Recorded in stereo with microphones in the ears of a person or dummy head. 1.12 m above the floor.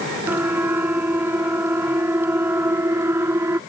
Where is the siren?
10° right (ahead or behind).